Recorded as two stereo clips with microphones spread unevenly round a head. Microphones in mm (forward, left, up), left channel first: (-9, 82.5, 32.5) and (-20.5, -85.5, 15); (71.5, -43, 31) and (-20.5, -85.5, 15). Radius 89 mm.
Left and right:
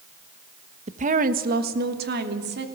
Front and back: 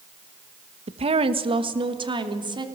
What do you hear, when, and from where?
0.9 s a woman speaking: 145° right, 1.1 m; by 2.6 s 115° right, 3 m